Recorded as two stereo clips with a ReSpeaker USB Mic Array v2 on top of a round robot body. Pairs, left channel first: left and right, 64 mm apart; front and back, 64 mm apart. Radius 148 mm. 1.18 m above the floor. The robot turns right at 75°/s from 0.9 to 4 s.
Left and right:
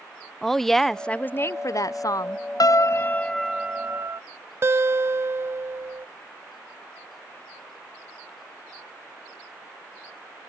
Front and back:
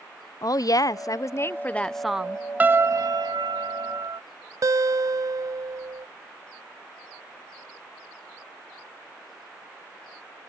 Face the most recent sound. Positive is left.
turn(degrees=-140)